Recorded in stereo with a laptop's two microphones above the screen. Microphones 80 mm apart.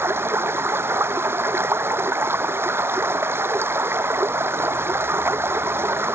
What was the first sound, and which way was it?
Running water, 30° right (ahead or behind).